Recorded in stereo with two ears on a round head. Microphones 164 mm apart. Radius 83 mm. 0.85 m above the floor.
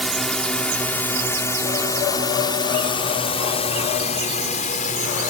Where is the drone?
Centre (ahead or behind); by 5.3 s 45° left (ahead or behind).